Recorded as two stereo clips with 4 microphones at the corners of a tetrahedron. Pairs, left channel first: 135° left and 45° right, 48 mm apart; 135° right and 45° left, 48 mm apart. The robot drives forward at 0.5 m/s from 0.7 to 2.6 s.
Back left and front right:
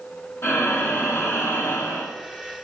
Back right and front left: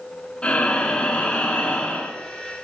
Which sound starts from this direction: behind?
Breathing, at 0.4 s.